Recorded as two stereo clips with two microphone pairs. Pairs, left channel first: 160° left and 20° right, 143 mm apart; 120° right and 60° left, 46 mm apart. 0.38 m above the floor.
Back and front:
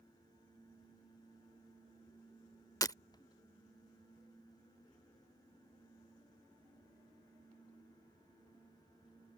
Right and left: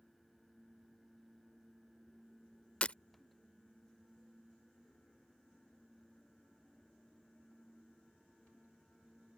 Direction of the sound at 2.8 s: 160° right.